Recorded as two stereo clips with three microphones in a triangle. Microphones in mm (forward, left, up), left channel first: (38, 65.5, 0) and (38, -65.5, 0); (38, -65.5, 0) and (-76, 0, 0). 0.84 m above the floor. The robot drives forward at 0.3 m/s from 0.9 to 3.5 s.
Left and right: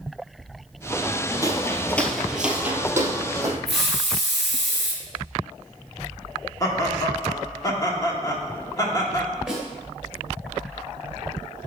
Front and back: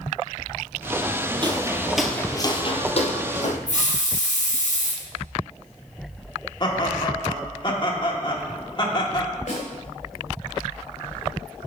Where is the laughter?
25° left, 1.6 m.